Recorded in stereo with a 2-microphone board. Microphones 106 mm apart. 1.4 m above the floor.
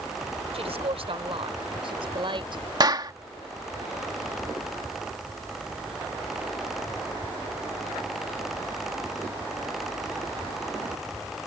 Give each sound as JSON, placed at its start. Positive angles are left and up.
{"t": 0.5, "sound": "a woman speaking", "side_deg": -70}
{"t": 2.8, "sound": "a clap", "side_deg": -45}